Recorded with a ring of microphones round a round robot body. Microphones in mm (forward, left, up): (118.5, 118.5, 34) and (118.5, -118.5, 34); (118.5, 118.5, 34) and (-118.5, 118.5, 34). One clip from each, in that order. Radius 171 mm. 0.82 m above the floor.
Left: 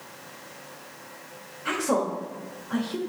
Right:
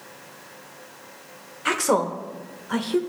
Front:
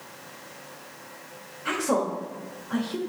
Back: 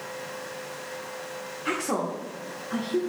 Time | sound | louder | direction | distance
1.6 | a woman speaking | right 4 dB, front 3 dB | 95° right | 0.9 m